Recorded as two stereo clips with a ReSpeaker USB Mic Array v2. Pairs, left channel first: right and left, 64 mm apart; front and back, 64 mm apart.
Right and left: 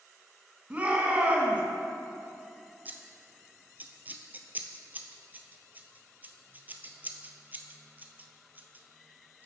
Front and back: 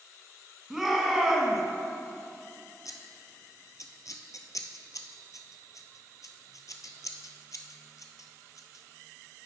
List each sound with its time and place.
0.7 s a shout: 105° left, 1.6 m
2.9 s scissors: 25° left, 0.7 m